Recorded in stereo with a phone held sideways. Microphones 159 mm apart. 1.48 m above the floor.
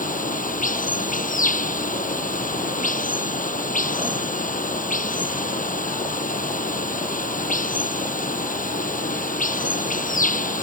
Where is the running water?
55° left (ahead or behind).